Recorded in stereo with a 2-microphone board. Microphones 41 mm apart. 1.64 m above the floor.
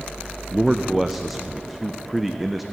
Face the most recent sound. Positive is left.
turn(degrees=-5)  # may be behind; listen again after turning